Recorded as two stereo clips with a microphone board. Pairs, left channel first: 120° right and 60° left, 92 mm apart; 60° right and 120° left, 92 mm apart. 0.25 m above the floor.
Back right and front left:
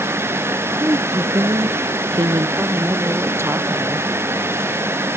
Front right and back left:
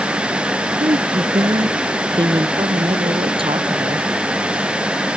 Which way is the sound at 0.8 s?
115° left.